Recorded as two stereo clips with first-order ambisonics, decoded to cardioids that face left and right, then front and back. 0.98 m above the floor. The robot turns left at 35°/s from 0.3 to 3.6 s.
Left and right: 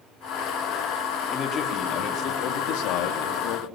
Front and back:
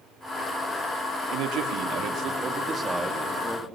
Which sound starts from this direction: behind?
A man speaking, at 1.3 s.